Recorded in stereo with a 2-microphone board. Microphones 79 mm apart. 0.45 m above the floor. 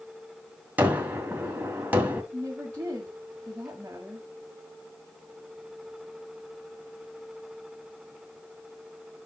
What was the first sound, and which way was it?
A gunshot, 25° right (ahead or behind).